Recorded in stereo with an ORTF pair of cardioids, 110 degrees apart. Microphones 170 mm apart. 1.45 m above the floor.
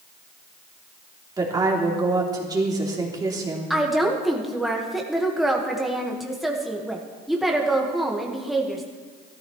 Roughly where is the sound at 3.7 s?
Ahead.